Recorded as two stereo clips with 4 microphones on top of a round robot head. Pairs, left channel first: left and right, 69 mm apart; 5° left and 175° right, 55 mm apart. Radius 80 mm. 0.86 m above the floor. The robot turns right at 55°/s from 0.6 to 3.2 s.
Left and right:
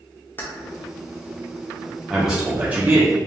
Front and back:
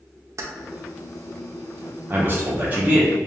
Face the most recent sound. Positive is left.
turn(degrees=-115)